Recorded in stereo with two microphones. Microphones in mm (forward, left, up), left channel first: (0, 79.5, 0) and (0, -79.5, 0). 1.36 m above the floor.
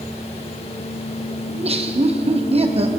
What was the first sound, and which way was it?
Laughter, 40° right (ahead or behind).